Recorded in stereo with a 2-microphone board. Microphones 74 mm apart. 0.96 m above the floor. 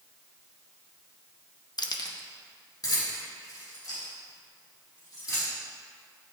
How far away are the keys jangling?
About 0.5 m.